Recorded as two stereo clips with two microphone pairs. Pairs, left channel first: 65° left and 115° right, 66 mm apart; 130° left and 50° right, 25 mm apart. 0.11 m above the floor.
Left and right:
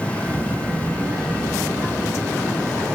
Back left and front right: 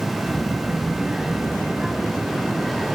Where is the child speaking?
165° right, 1.0 m; by 3.0 s 80° right, 3 m.